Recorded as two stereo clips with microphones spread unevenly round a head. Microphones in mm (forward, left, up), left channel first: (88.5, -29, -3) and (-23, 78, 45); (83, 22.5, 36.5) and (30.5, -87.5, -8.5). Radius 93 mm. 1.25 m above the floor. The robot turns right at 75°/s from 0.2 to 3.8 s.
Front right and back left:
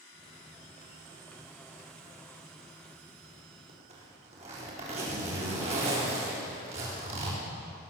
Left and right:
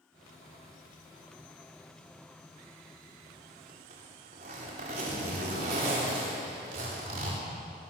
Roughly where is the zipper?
Behind.